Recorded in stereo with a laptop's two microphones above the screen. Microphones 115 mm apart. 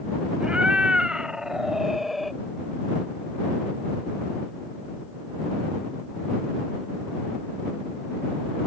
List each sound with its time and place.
0.4 s a cat meowing: 10° right (ahead or behind); by 2.4 s centre (ahead or behind)